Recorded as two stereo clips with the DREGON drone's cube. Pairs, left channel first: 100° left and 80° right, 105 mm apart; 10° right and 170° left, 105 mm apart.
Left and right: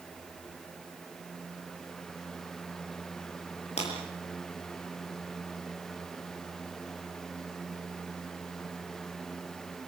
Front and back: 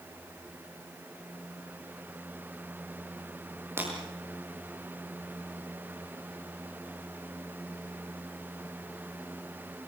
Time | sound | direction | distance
3.8 | breaking glass | 105° left | 7.5 m